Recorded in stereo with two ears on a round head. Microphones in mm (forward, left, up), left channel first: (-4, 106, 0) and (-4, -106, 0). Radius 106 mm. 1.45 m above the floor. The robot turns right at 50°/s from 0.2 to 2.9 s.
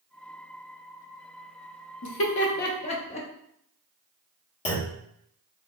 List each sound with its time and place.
2.0 s laughter: 65° left (ahead or behind), 0.8 m; by 3.3 s 25° left (ahead or behind), 0.8 m
4.7 s a clunk: 25° left (ahead or behind), 1.0 m